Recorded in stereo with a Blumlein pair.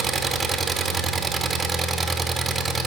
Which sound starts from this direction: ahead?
An engine running, at 0.0 s.